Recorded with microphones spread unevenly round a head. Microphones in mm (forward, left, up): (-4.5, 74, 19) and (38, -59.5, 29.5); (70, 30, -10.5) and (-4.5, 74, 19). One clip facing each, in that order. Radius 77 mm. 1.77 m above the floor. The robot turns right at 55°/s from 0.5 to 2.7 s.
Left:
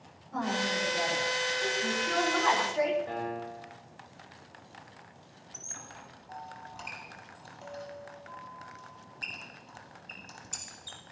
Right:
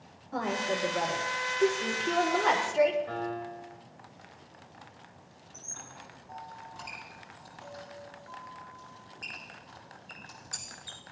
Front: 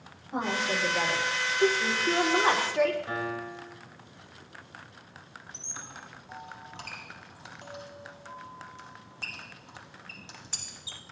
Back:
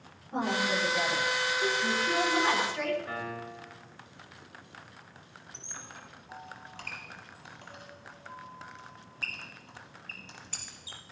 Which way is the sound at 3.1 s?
45° left.